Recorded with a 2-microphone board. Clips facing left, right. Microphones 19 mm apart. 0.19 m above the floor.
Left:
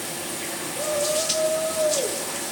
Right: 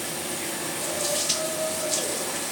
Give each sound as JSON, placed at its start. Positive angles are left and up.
{"t": 0.8, "sound": "a shout", "side_deg": 75, "distance_m": 8.0}